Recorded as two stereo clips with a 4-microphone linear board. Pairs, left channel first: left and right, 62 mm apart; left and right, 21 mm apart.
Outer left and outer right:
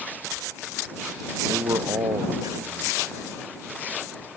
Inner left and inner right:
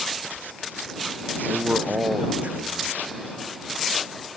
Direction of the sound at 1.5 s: 75° right (ahead or behind).